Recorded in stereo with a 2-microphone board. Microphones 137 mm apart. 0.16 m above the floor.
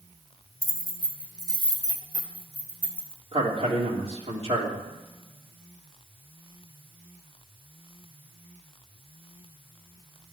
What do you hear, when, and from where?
0.6 s keys jangling: 45° left (ahead or behind), 1.4 m; by 3.2 s 15° left (ahead or behind), 2.5 m
3.3 s a man speaking: 45° right (ahead or behind), 3.5 m